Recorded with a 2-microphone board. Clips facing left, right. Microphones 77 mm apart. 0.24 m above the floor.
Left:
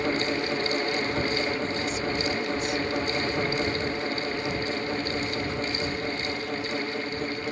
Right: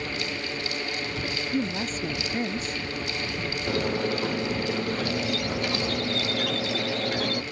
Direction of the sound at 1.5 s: 40° right (ahead or behind).